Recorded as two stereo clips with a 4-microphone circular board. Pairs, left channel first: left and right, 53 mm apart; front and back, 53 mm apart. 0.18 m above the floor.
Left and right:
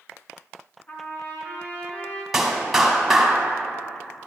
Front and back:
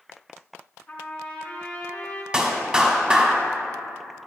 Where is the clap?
160° right, 1.2 m.